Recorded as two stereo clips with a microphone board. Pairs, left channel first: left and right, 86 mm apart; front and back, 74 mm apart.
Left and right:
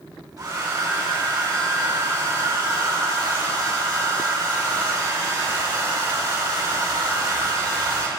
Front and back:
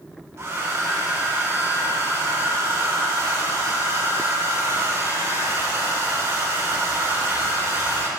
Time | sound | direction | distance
0.4 | a hair dryer | 130° right | 1.9 m